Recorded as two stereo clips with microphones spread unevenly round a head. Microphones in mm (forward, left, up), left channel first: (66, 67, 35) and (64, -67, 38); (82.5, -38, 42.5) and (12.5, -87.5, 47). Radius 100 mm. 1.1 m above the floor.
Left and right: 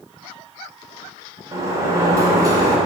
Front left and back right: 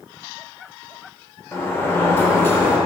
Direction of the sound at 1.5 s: 30° right.